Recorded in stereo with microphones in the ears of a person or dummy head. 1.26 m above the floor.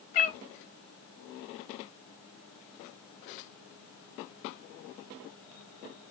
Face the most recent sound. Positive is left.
turn(degrees=35)  # may be behind; listen again after turning